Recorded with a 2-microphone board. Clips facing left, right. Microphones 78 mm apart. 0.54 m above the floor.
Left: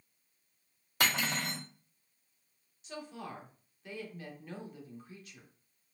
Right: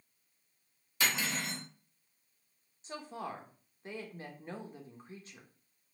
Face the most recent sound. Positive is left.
turn(degrees=-35)  # may be behind; listen again after turning